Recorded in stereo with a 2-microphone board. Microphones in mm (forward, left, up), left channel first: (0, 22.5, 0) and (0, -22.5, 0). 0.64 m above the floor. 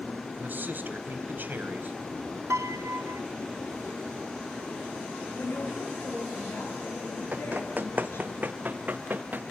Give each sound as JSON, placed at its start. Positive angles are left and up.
{"t": 0.4, "sound": "a man speaking", "side_deg": -45, "distance_m": 4.0}
{"t": 2.5, "sound": "a piano", "side_deg": -70, "distance_m": 0.7}
{"t": 5.3, "sound": "a woman speaking", "side_deg": 55, "distance_m": 9.5}
{"t": 7.3, "sound": "running footsteps", "side_deg": -40, "distance_m": 1.3}